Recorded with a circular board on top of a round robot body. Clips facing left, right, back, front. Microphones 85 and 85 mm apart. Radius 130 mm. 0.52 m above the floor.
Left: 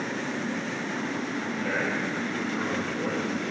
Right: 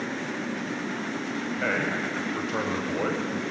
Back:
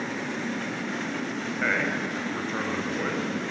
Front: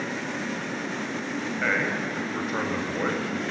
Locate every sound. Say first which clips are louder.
1.6 s a man speaking: right 2 dB, even; 90° right, 4.5 m; by 3.4 s 65° right, 4.5 m